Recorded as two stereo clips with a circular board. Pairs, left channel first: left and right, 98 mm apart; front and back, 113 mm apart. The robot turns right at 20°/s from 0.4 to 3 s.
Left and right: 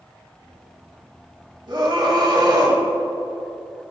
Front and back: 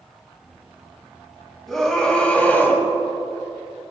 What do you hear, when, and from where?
1.7 s a scream: 85° right, 2.5 m; by 2.8 s 65° right, 2.5 m